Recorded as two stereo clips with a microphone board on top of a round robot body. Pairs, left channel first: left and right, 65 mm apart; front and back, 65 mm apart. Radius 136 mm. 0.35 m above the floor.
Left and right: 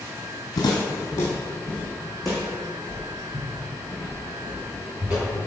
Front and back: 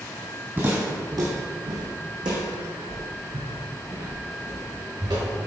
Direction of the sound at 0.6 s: 115° left.